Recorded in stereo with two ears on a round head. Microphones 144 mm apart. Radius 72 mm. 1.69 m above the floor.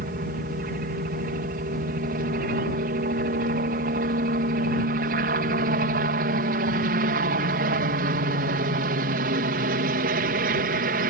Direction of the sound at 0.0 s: 65° right (ahead or behind).